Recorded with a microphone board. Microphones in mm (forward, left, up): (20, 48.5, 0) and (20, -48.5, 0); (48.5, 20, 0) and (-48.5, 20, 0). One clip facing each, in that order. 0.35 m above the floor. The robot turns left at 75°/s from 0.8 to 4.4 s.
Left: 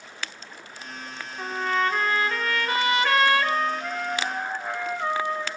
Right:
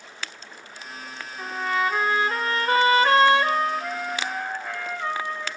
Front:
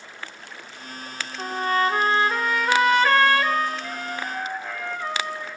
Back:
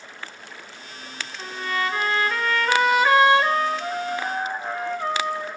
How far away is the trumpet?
About 1.2 m.